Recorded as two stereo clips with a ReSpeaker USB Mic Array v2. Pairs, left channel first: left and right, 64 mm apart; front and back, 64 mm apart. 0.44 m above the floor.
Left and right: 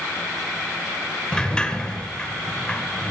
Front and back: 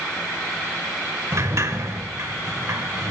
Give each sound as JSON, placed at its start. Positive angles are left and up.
{"t": 1.3, "sound": "a sliding door", "azimuth_deg": 160, "distance_m": 1.4}